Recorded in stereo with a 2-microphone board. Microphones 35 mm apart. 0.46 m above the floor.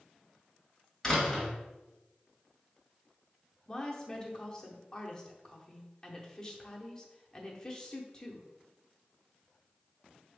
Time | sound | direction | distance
1.0 | a door slam | 10° left (ahead or behind) | 1.5 m
3.7 | a woman speaking | 20° left (ahead or behind) | 0.7 m